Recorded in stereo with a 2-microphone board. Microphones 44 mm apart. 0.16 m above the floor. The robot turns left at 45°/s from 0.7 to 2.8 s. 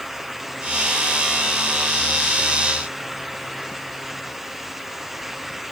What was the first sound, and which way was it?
Only background noise.